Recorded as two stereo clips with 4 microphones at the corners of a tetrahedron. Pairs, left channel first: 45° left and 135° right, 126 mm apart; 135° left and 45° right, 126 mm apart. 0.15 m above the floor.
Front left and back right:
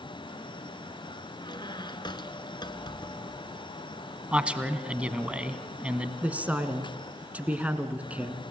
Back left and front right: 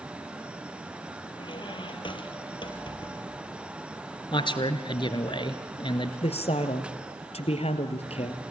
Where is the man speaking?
150° left, 1.5 m.